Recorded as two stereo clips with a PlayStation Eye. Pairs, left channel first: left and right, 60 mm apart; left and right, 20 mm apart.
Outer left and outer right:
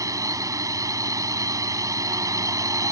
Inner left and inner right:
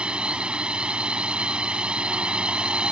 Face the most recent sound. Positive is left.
turn(degrees=-60)  # may be behind; listen again after turning